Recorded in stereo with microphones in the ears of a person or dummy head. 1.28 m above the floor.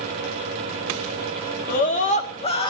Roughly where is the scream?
Left.